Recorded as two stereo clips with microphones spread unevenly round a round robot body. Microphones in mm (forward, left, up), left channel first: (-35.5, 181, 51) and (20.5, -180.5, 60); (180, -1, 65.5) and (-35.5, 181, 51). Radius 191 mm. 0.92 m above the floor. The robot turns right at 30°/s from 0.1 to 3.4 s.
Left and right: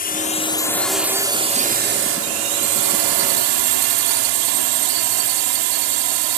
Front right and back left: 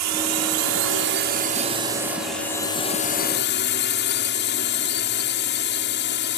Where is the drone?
165° left; by 6.4 s 95° right.